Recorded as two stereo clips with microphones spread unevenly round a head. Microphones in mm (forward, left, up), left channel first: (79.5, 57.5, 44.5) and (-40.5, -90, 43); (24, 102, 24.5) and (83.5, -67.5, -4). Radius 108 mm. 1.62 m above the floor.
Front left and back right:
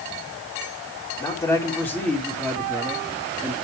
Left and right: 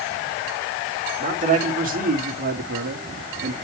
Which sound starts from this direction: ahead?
A man speaking, at 1.2 s.